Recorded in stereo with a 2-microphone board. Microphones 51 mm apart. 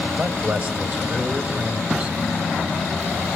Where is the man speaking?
30° right (ahead or behind), 2.5 m.